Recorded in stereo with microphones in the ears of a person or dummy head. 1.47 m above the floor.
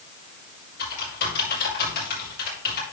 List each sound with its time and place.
0.8 s typing on a keyboard: 55° left (ahead or behind), 5.5 m